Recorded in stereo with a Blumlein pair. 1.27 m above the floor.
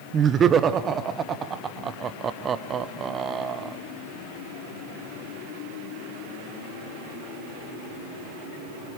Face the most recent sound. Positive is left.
turn(degrees=-25)